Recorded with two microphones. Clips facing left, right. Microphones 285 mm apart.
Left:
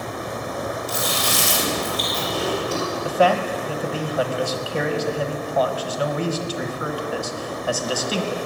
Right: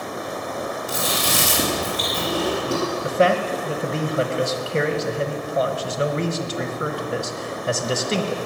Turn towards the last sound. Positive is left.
turn(degrees=-25)  # may be behind; listen again after turning